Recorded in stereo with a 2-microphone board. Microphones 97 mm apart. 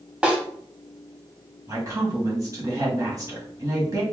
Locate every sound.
0.2 s a snare drum: 10° right (ahead or behind), 0.7 m
1.7 s a woman speaking: 35° right (ahead or behind), 1.4 m